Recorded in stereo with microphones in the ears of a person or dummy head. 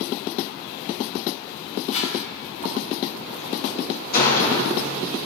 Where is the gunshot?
50° left (ahead or behind), 1.6 m.